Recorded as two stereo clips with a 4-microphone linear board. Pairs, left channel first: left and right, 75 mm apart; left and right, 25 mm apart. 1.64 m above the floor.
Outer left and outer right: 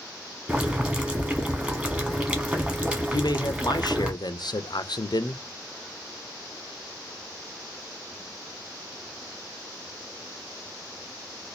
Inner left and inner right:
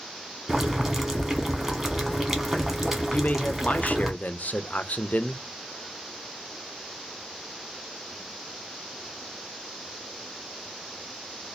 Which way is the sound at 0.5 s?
15° right (ahead or behind).